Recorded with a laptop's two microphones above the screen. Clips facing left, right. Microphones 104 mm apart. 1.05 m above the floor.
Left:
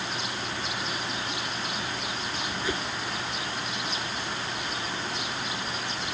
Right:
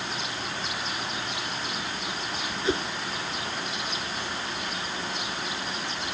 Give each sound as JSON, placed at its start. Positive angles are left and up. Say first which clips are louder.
{"t": 2.6, "sound": "a whoosh", "louder": "right 6 dB", "side_deg": -25}